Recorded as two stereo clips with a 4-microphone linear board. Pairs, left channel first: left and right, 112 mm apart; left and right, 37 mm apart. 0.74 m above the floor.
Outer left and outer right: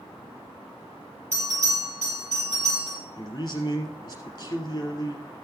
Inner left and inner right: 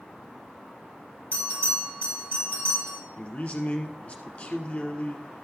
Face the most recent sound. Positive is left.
turn(degrees=35)  # may be behind; listen again after turning